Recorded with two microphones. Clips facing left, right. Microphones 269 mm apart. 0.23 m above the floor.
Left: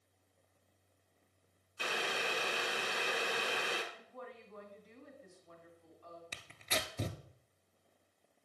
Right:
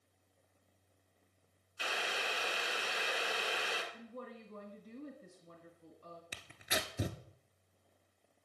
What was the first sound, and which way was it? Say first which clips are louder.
Boiling: left 3 dB; 55° left (ahead or behind).